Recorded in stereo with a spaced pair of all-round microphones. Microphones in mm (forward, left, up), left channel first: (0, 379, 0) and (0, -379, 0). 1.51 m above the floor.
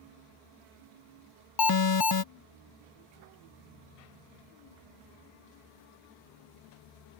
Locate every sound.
1.6 s an alarm: 30° left (ahead or behind)